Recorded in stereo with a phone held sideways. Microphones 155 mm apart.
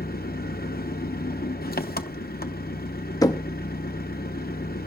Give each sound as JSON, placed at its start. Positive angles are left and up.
{"t": 0.0, "sound": "an engine running", "side_deg": 75, "distance_m": 0.8}
{"t": 3.2, "sound": "knocking", "side_deg": 25, "distance_m": 0.7}